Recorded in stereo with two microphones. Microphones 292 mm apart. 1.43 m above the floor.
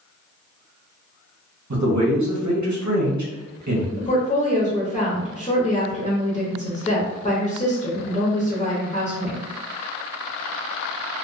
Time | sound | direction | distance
1.7 | a man speaking | 70° right (ahead or behind) | 0.8 m
4.0 | a woman speaking | 25° left (ahead or behind) | 0.7 m